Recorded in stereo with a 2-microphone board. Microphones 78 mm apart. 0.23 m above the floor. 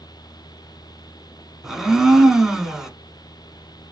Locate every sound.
1.6 s a blender: 5° right (ahead or behind), 0.6 m